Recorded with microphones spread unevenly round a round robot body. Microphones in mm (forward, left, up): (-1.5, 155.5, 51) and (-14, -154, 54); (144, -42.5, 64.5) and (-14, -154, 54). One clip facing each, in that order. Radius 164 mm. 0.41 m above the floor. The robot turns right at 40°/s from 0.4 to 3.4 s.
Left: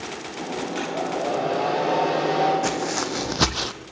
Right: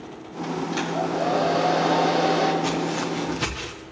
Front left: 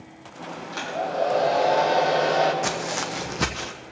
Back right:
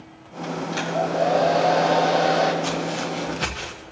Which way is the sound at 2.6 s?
25° left.